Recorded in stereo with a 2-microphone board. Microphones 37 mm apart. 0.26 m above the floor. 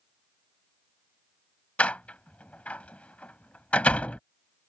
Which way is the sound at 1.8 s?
40° left (ahead or behind).